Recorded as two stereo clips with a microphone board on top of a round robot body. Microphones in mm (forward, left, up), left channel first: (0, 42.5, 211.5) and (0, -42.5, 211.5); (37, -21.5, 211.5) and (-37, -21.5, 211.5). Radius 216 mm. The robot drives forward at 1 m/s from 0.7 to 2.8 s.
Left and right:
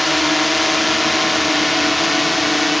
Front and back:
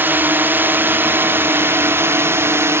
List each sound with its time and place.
0.0 s a drone: straight behind